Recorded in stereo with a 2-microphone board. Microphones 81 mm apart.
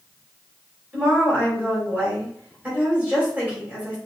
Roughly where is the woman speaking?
Centre.